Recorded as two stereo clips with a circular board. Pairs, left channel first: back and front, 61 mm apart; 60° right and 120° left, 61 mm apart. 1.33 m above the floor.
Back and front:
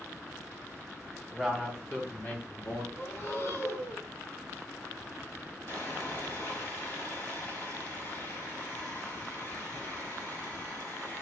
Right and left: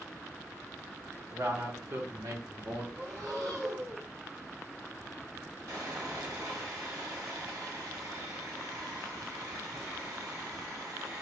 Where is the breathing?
145° left, 3 m.